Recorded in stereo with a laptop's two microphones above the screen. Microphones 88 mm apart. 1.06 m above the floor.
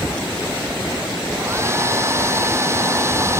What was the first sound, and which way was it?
A hair dryer, 30° right (ahead or behind).